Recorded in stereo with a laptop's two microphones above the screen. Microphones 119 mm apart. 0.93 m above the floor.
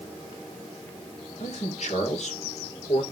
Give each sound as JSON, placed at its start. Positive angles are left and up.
{"t": 1.4, "sound": "a man speaking", "side_deg": 75, "distance_m": 3.0}